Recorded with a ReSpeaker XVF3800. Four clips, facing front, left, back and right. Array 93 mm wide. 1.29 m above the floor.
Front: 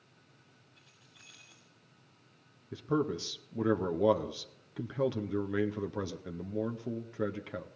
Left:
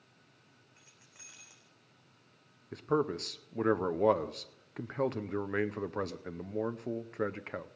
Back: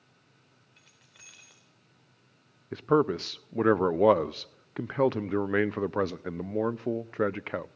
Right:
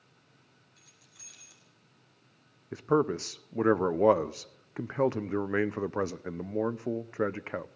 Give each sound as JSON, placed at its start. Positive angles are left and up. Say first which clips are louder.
{"t": 0.8, "sound": "keys jangling", "louder": "left 1 dB, back 4 dB", "azimuth_deg": 150, "distance_m": 3.5}
{"t": 2.7, "sound": "a man speaking", "louder": "right 4 dB, back 7 dB", "azimuth_deg": -160, "distance_m": 0.6}